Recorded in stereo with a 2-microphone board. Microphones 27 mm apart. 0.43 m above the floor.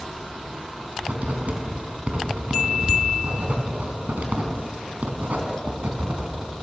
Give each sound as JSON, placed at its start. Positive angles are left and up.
{"t": 1.0, "sound": "writing", "side_deg": -70, "distance_m": 3.5}